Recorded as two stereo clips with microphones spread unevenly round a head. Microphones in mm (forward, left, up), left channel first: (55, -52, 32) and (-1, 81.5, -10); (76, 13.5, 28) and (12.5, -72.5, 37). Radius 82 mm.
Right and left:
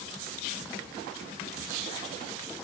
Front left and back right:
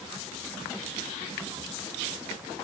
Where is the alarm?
No alarm in this recording.